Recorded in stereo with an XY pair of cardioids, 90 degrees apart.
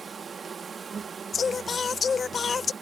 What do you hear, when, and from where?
0.0 s an insect: 45° right
1.3 s singing: 45° left